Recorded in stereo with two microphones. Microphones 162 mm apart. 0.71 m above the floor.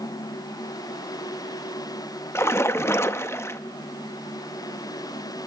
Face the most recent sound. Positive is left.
turn(degrees=15)  # may be behind; listen again after turning